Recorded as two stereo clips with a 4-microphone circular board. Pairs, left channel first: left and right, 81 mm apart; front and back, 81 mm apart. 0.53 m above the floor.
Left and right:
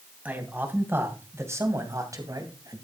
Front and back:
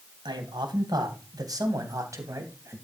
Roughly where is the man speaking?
Behind.